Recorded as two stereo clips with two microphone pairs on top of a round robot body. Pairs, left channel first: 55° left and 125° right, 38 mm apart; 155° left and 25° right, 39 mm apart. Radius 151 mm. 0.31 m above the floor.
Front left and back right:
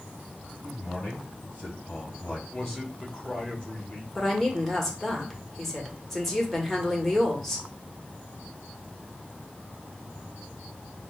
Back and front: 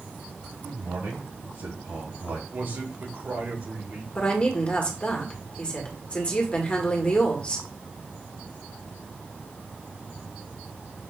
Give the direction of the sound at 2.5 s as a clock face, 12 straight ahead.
1 o'clock.